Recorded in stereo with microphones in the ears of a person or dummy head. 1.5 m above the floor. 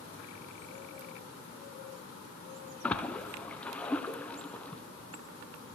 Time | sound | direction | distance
2.8 | a splash | 5° left (ahead or behind) | 0.7 m